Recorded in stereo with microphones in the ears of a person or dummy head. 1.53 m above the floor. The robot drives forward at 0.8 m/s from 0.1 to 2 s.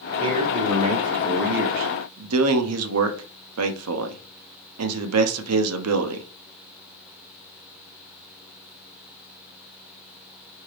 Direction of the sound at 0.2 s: 25° right (ahead or behind).